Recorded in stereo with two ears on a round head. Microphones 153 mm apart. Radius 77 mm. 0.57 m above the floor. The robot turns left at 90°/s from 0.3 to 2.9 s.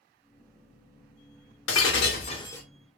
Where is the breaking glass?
95° left, 0.8 m; by 2.6 s 10° left, 0.8 m.